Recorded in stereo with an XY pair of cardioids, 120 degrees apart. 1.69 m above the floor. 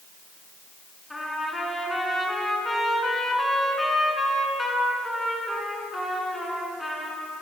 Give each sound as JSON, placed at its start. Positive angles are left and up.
{"t": 1.1, "sound": "a trumpet", "azimuth_deg": 10, "distance_m": 6.5}